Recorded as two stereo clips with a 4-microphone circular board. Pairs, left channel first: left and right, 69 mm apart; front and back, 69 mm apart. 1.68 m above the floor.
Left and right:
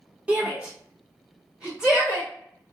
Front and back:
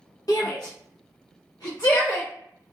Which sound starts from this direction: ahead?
A shout, at 0.3 s.